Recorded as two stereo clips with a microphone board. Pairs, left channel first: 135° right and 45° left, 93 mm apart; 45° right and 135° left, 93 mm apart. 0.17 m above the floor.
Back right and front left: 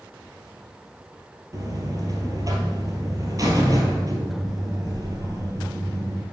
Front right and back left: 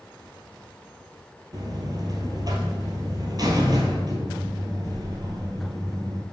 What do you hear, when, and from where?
1.5 s a buzzer: 95° left, 1.6 m